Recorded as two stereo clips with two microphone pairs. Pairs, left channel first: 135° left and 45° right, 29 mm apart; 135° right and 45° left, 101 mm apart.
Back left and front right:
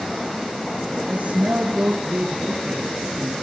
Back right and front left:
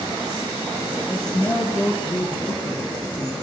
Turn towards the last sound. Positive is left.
turn(degrees=-75)